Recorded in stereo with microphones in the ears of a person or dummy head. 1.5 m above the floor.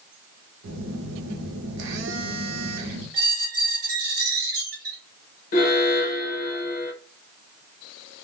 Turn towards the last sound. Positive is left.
turn(degrees=40)  # may be behind; listen again after turning